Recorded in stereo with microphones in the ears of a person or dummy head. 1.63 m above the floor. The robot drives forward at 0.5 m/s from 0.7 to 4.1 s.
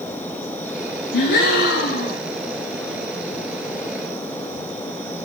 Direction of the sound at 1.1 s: 70° left (ahead or behind).